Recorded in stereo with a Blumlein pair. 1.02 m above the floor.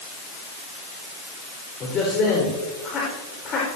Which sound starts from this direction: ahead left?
A man speaking, at 1.8 s.